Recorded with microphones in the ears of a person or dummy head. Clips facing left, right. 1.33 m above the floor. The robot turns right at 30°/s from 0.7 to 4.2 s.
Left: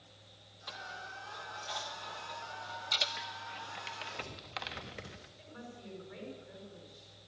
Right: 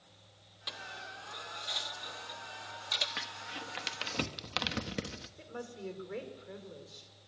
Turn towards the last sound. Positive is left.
turn(degrees=-65)  # may be behind; listen again after turning